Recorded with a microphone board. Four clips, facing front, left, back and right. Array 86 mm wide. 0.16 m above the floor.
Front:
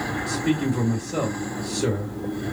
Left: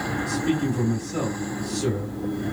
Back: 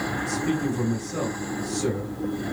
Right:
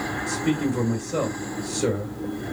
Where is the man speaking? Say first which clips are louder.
Right 1 dB, front 3 dB; 55° right, 2.5 m.